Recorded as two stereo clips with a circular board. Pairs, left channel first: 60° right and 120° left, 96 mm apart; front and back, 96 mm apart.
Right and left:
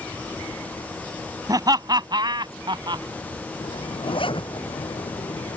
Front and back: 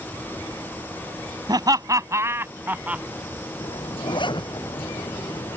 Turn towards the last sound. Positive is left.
turn(degrees=-35)